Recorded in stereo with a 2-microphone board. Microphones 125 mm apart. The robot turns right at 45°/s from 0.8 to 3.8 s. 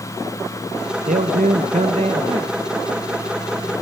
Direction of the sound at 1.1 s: 95° right.